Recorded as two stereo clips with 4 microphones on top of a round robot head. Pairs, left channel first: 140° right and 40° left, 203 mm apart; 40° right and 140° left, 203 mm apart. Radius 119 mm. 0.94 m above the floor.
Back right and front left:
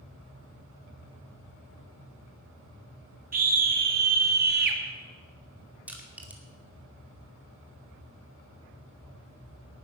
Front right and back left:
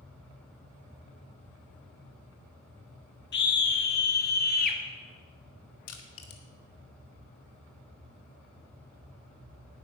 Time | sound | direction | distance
3.3 | a scream | 5° right | 3 m
5.9 | crushing | 45° right | 2 m